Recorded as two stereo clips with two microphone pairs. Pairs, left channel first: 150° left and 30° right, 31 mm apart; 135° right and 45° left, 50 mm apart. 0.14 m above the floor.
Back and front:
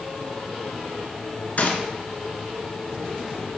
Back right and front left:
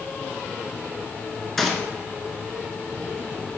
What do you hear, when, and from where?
1.6 s a gunshot: 145° left, 1.3 m